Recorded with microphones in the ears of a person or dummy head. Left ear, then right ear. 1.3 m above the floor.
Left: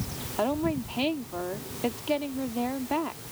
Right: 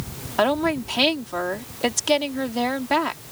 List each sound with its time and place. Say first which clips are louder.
0.4 s a woman speaking: right 7 dB; 65° right (ahead or behind)